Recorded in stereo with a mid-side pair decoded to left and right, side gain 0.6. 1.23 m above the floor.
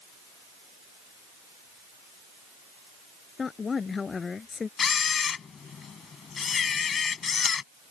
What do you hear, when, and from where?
3.4 s a woman speaking: 30° left; by 4.7 s 25° left
4.8 s a camera shutter: 35° left